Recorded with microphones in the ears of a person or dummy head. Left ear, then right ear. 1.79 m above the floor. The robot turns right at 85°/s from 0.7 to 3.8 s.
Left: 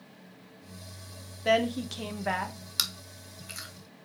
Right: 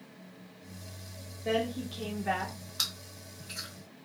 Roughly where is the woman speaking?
Ahead left.